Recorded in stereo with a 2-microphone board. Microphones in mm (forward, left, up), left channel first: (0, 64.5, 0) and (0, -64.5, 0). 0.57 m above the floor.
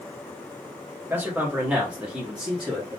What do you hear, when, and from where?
1.1 s a man speaking: 15° right (ahead or behind), 0.9 m; by 3.0 s 5° right (ahead or behind), 1.2 m